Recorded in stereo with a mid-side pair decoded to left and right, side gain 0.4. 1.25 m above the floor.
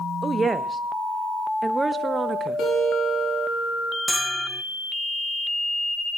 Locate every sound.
0.2 s a woman speaking: 40° right, 1.1 m
2.6 s a guitar: 65° left, 7.5 m
4.1 s a bell: straight ahead, 1.0 m